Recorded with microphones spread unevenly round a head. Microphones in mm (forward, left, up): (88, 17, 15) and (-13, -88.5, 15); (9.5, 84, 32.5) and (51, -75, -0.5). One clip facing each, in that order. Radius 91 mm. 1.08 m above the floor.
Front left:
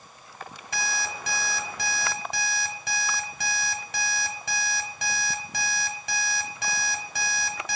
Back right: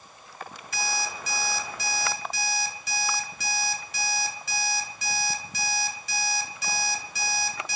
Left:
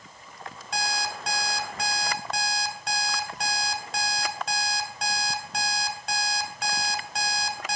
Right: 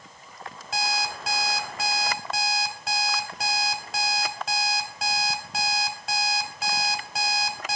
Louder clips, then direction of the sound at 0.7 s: Back right 1 dB, right 2 dB; 15° left.